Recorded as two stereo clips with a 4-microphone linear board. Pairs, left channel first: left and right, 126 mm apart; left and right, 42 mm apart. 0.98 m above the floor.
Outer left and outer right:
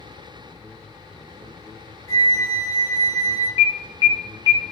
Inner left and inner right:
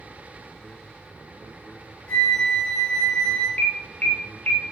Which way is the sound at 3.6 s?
35° left (ahead or behind).